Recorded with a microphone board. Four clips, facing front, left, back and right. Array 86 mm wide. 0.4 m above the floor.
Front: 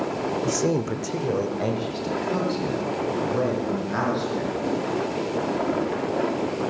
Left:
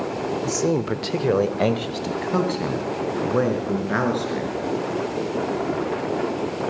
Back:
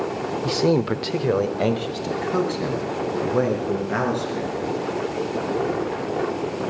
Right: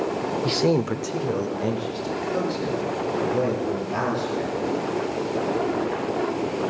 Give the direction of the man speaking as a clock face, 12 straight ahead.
4 o'clock.